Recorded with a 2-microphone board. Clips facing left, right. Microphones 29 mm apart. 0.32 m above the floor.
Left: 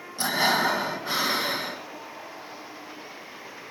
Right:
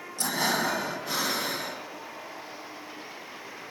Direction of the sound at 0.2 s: 35° left (ahead or behind).